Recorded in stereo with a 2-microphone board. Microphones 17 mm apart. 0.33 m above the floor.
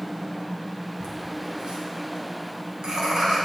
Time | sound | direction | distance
1.0 | laughter | 65° right (ahead or behind) | 3.5 m